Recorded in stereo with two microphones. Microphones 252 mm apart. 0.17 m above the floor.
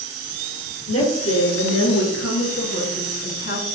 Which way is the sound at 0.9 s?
70° left (ahead or behind).